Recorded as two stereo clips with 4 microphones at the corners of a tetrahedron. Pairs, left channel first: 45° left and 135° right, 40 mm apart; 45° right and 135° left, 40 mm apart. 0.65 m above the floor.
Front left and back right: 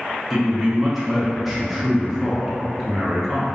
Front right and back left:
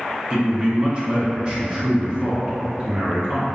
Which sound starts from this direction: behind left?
A man speaking, at 0.3 s.